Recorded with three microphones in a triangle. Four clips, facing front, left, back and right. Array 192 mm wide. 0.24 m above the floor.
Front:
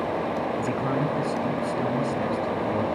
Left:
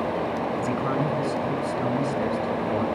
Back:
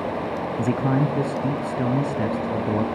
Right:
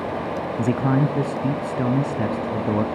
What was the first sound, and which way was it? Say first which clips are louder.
A man speaking: right 8 dB, back 4 dB; 120° right.